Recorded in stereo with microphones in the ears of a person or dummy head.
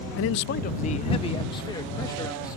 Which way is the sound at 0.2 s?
65° left (ahead or behind).